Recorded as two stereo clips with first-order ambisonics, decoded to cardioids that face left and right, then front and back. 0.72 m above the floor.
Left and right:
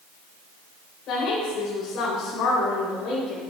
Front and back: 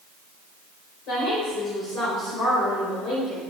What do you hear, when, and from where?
1.1 s a woman speaking: 40° left, 3 m